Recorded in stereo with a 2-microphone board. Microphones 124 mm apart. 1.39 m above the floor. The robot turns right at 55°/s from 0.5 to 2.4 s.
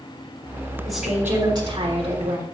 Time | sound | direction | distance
0.8 | a woman speaking | 175° left | 3 m